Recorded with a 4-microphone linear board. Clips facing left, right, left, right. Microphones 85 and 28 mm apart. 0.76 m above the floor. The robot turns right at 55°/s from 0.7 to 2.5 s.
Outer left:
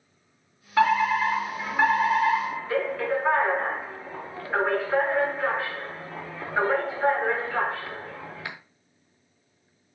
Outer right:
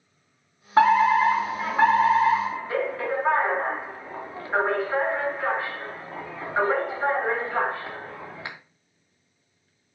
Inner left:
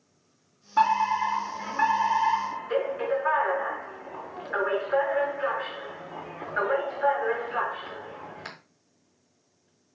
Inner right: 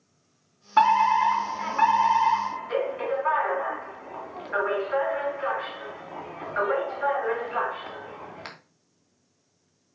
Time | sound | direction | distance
0.8 | a fire alarm | 135° right | 2.5 m